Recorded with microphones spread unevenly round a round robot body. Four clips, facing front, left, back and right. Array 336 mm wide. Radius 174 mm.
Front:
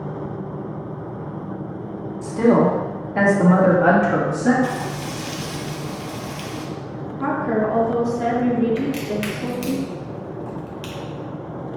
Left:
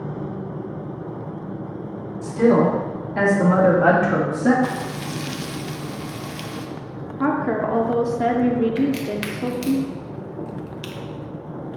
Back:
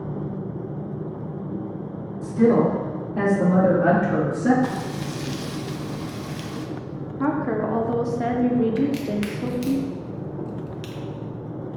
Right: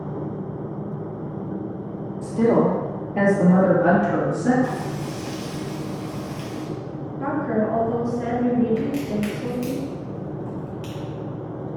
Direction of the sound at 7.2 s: 100° left.